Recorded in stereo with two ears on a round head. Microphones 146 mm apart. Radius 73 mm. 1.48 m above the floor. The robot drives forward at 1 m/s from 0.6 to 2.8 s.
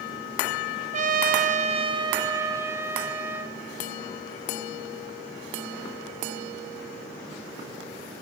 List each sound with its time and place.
0.9 s a trumpet: 45° right (ahead or behind), 0.6 m; by 3.6 s 15° right (ahead or behind), 1.6 m